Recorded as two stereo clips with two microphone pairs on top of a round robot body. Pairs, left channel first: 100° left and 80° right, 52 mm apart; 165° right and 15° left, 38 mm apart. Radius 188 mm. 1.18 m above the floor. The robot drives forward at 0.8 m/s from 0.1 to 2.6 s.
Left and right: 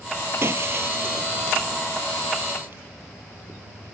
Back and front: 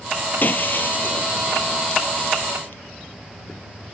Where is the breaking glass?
125° right; by 2.8 s 130° right.